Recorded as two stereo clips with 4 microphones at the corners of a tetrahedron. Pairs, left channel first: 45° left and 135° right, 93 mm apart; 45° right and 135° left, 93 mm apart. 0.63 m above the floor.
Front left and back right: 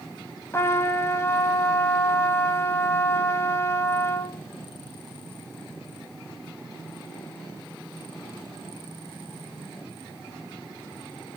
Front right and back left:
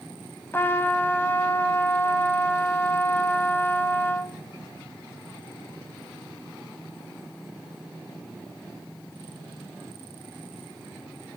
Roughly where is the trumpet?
Ahead.